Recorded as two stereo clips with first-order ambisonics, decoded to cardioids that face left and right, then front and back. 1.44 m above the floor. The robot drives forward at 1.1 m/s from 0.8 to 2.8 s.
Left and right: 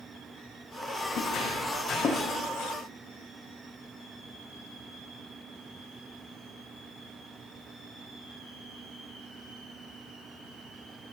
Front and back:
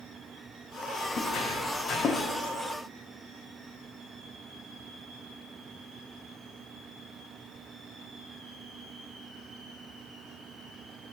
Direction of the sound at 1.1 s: 55° left.